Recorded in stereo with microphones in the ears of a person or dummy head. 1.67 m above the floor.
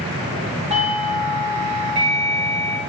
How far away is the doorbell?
About 2.5 m.